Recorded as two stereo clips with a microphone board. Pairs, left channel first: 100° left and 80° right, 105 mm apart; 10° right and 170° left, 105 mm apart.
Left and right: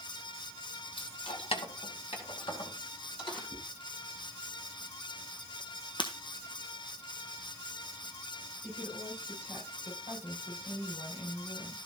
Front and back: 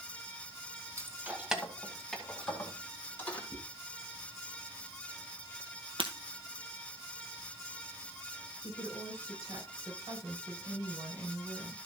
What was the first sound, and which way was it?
Keys jangling, 110° left.